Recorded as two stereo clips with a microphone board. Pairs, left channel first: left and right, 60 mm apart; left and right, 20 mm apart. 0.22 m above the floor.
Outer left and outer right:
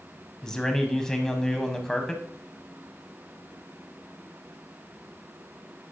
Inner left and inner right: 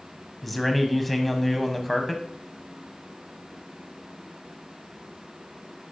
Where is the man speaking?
10° left (ahead or behind), 1.4 m.